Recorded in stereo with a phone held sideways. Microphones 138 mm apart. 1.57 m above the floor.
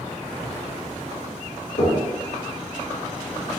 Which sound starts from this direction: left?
Knocking, at 1.8 s.